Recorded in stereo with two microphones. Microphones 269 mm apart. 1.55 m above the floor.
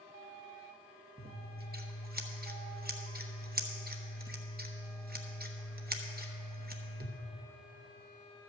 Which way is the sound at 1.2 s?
35° right (ahead or behind).